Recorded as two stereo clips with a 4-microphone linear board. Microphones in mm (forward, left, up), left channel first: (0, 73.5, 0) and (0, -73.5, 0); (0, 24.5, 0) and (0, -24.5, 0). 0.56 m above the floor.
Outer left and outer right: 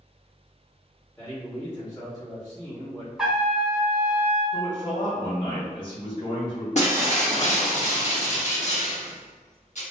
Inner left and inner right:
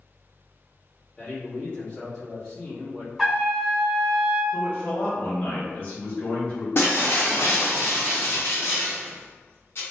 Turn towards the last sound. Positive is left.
turn(degrees=50)  # may be behind; listen again after turning